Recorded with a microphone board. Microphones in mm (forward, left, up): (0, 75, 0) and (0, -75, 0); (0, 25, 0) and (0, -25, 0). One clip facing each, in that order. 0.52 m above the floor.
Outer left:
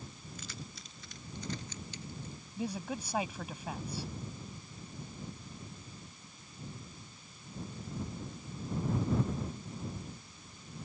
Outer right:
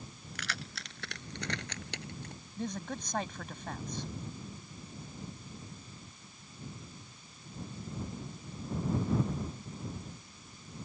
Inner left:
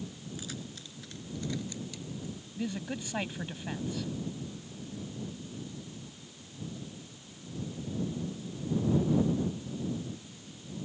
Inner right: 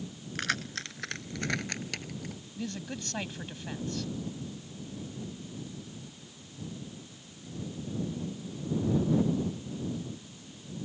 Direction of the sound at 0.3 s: 85° right.